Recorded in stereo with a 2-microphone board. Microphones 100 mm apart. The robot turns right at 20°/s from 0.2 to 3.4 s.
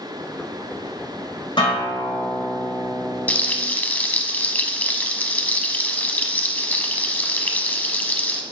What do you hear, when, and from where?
1.6 s a guitar: 55° left, 3.5 m; by 3.6 s 95° left, 3.5 m
3.3 s frying: 15° left (ahead or behind), 0.6 m